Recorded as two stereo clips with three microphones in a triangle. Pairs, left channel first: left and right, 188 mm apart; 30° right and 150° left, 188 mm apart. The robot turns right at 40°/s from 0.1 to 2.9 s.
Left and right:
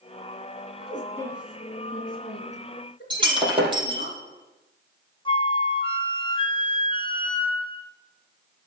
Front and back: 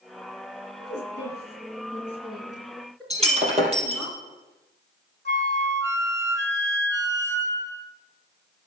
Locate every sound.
0.8 s a woman speaking: 30° right, 3 m; by 4.1 s 55° left, 3 m
3.1 s breaking glass: 155° right, 3.5 m
5.2 s a flute: 150° left, 1.0 m